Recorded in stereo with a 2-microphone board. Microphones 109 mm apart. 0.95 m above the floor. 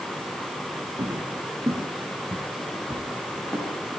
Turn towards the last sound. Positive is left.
turn(degrees=25)  # may be behind; listen again after turning